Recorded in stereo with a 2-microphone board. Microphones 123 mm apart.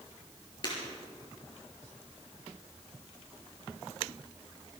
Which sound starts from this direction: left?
Breaking glass, at 0.6 s.